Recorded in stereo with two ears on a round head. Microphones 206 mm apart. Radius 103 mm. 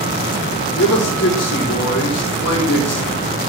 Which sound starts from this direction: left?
A man speaking, at 0.8 s.